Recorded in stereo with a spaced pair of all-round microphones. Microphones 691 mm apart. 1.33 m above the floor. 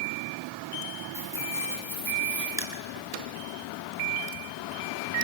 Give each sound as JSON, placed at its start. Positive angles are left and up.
{"t": 1.1, "sound": "keys jangling", "side_deg": -5, "distance_m": 7.5}
{"t": 2.6, "sound": "crushing", "side_deg": -20, "distance_m": 3.0}